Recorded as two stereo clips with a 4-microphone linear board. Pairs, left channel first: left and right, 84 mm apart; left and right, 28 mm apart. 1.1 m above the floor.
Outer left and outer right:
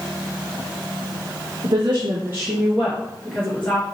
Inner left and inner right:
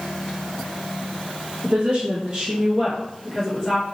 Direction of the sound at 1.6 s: 60° right (ahead or behind).